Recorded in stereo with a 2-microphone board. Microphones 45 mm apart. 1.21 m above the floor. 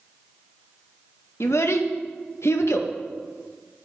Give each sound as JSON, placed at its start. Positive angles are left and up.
{"t": 1.4, "sound": "a child speaking", "side_deg": 65, "distance_m": 1.0}